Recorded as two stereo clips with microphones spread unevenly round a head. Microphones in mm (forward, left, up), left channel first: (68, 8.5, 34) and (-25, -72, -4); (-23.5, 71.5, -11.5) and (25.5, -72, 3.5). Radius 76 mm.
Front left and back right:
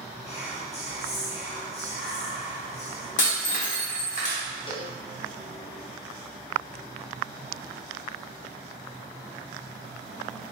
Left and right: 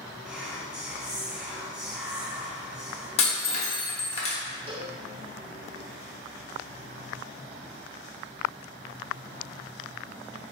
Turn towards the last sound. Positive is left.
turn(degrees=-15)